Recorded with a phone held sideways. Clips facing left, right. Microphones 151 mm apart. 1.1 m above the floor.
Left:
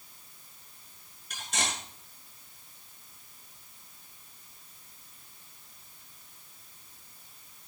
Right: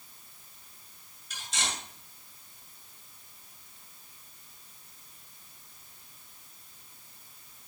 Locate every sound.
1.3 s cutlery clinking: 55° left (ahead or behind), 6.5 m